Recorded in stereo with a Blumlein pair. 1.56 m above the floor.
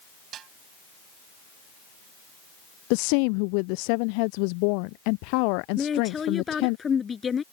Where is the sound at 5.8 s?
15° left.